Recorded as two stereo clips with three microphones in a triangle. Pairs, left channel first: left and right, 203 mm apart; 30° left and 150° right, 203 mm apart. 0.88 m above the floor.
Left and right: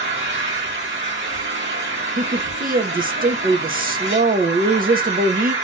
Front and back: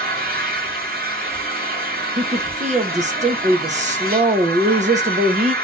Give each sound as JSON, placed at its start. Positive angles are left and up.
{"t": 0.0, "sound": "an engine running", "azimuth_deg": -105, "distance_m": 2.5}
{"t": 2.2, "sound": "a woman speaking", "azimuth_deg": -110, "distance_m": 0.9}